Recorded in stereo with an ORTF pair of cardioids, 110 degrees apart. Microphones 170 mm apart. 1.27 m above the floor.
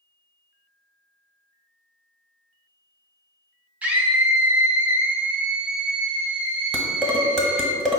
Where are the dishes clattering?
Straight ahead, 0.9 m.